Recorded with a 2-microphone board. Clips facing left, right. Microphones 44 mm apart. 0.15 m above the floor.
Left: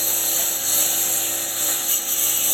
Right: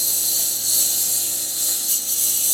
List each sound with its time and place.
0.0 s a lawn mower: 35° left (ahead or behind)